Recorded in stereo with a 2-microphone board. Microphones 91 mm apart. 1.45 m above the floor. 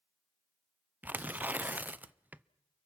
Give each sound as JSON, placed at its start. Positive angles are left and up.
{"t": 1.0, "sound": "tearing paper", "side_deg": -20, "distance_m": 0.5}